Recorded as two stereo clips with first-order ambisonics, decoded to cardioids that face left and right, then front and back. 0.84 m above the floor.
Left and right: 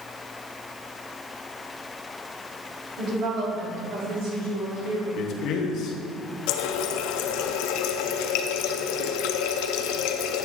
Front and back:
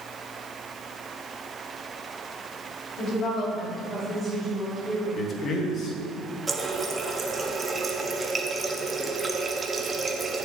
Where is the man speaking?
50° left, 1.1 m.